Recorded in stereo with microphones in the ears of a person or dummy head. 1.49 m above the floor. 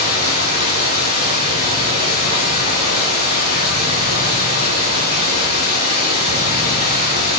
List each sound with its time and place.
0.0 s running water: 40° right (ahead or behind), 4.5 m